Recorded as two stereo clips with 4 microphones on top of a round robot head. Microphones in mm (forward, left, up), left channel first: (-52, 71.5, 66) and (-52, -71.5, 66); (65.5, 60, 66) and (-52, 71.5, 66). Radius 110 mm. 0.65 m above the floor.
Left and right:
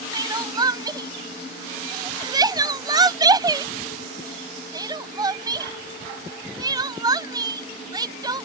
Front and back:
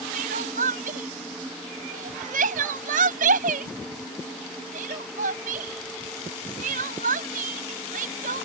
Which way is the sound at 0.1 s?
155° right.